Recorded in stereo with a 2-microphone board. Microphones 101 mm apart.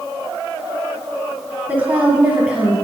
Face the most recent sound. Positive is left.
turn(degrees=-10)  # may be behind; listen again after turning